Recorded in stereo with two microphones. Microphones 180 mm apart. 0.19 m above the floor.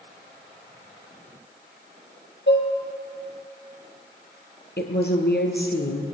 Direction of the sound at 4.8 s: 65° left (ahead or behind).